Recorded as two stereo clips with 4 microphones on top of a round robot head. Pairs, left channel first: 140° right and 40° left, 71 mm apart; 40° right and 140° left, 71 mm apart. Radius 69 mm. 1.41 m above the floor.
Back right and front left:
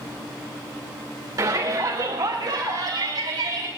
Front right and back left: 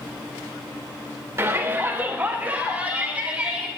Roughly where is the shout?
Left.